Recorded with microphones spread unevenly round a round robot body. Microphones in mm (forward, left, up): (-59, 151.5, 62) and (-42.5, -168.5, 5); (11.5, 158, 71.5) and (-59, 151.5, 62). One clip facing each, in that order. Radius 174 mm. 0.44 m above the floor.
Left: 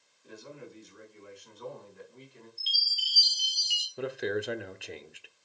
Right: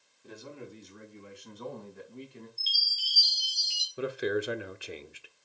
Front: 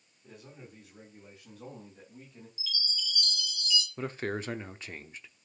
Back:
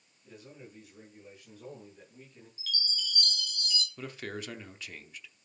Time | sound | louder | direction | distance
0.2 | a man speaking | right 2 dB, even | 65° right | 4.5 m
2.6 | a chime | left 1 dB, back 1 dB | 170° left | 2 m
4.0 | a man speaking | right 2 dB, front 6 dB | 30° right | 0.8 m